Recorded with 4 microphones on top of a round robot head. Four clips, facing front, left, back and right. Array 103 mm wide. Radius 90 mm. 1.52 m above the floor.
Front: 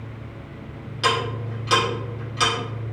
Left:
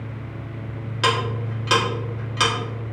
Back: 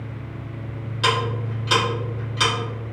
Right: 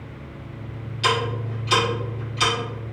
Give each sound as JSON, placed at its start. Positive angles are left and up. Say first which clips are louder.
{"t": 1.0, "sound": "ticking", "louder": "left 1 dB, back 1 dB", "azimuth_deg": 85, "distance_m": 1.7}